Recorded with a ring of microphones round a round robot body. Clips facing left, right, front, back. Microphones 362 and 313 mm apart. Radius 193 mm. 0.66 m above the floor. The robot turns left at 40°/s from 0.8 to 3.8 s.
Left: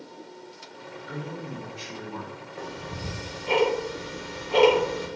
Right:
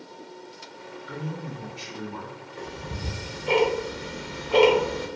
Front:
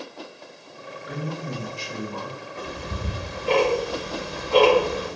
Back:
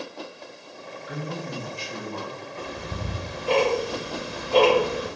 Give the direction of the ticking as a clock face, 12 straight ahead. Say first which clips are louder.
Even, front 2 dB; 1 o'clock.